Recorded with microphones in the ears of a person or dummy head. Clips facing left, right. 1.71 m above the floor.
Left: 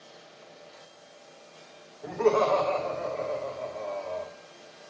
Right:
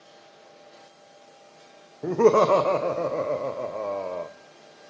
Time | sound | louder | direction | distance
2.0 | laughter | right 5 dB | 60° right (ahead or behind) | 0.7 m